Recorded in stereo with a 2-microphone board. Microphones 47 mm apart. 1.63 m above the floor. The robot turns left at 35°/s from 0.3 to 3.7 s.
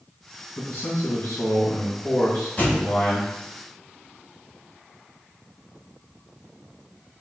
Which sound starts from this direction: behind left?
A man speaking, at 0.6 s.